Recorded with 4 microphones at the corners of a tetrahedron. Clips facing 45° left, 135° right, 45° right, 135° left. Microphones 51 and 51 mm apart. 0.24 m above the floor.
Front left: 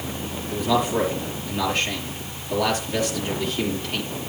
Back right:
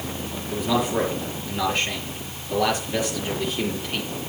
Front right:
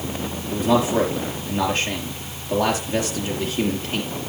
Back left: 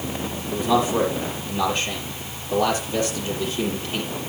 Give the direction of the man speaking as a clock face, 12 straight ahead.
2 o'clock.